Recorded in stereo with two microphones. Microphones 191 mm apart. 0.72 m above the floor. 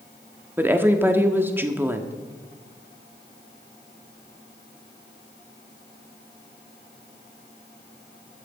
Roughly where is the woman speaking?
Centre.